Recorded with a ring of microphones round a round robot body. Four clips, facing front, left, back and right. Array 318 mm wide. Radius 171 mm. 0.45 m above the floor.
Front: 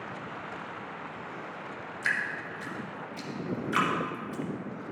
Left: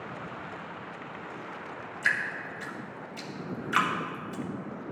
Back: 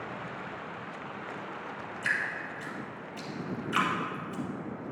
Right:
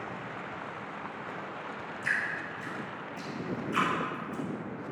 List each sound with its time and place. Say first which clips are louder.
2.0 s dripping: left 3 dB, front 1 dB; 80° left, 1.6 m